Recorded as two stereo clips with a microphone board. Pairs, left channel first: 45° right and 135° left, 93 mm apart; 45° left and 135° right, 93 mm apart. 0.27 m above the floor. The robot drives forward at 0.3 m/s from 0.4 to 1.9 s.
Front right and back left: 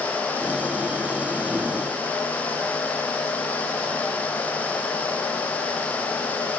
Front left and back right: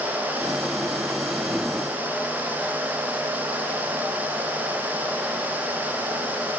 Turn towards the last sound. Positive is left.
No sound to turn to.